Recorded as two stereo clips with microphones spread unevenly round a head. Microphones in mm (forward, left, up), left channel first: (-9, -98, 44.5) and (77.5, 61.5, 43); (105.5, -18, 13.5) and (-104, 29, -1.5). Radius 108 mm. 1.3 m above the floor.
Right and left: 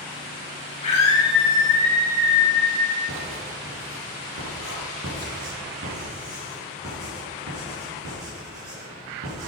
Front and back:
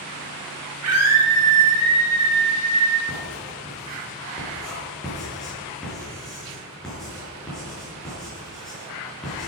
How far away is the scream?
About 3.5 m.